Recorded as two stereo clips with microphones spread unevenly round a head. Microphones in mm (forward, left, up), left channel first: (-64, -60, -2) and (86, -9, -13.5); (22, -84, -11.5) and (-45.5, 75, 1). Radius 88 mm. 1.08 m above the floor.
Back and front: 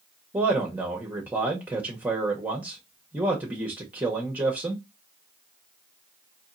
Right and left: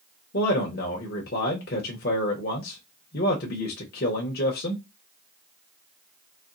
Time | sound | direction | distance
0.3 | a man speaking | 55° right | 0.8 m